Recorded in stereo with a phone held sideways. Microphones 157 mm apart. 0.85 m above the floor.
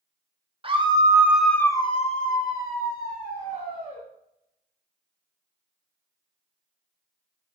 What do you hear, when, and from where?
0.6 s a scream: 35° right (ahead or behind), 1.2 m; by 4.0 s 80° left, 2 m